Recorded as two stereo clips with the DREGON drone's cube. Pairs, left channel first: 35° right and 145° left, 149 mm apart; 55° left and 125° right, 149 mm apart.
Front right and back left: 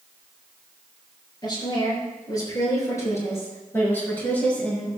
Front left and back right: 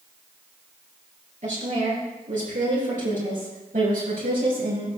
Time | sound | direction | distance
1.4 | a woman speaking | 95° right | 5.5 m